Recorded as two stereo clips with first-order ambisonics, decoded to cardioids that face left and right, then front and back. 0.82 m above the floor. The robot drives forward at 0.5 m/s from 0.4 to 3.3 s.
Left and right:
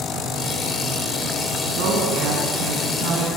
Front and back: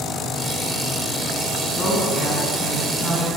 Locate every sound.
1.7 s a woman speaking: 65° right, 7 m; by 3.3 s 75° right, 7 m